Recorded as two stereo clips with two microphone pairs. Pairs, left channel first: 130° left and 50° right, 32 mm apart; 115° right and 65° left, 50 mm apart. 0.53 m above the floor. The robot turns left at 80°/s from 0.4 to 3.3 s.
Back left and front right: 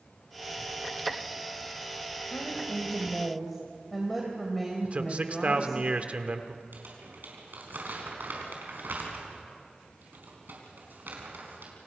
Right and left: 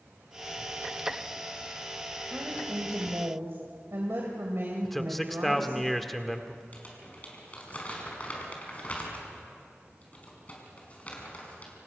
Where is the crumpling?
55° right, 5 m.